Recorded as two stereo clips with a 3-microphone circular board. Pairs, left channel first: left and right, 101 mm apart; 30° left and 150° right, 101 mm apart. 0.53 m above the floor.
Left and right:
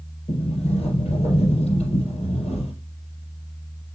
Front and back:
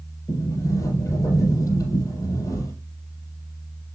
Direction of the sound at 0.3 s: 90° left.